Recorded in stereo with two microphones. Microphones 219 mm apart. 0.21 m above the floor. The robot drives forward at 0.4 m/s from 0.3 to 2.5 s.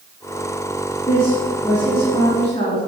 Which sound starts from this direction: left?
A woman speaking, at 1.1 s.